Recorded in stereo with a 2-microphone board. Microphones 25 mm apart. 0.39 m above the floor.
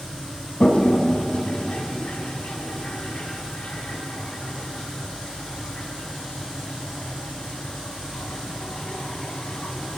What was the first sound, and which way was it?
A toilet flushing, 55° left (ahead or behind).